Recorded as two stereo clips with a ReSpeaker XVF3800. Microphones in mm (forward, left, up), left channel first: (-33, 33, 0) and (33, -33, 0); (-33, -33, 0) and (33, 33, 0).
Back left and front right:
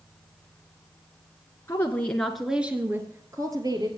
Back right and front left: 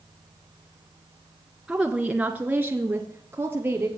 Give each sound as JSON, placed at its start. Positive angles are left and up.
{"t": 1.7, "sound": "a woman speaking", "azimuth_deg": 125, "distance_m": 1.3}